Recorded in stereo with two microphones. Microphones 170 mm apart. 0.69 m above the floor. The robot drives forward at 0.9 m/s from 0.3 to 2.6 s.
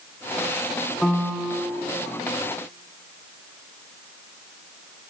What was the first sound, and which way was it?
A piano, centre (ahead or behind).